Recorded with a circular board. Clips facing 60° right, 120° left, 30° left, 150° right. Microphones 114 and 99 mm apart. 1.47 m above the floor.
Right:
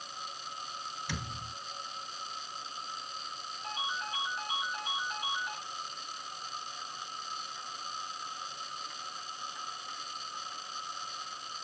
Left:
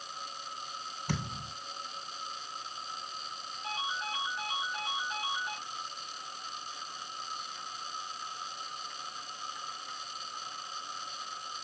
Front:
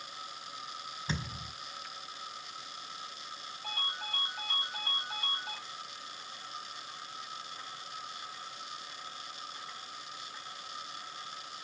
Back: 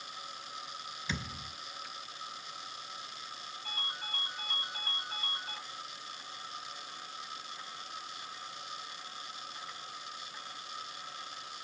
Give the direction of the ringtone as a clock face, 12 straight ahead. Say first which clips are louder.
Left 1 dB, front 4 dB; 11 o'clock.